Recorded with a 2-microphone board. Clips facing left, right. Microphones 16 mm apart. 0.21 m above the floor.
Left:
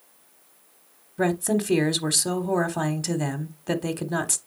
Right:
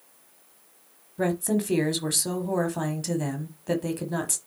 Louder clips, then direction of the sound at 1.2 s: Left 2 dB; 20° left (ahead or behind).